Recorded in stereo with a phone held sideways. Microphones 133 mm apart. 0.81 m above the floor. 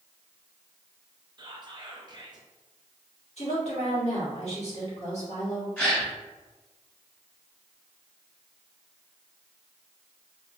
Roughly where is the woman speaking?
Left.